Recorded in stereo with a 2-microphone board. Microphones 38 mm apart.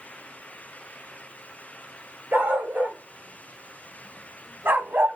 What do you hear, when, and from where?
2.3 s a dog barking: 65° right (ahead or behind), 3 m; by 5.2 s 80° right, 1.1 m